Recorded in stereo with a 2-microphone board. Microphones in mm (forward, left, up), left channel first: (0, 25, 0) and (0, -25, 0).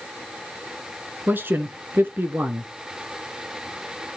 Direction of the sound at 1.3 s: 45° right (ahead or behind).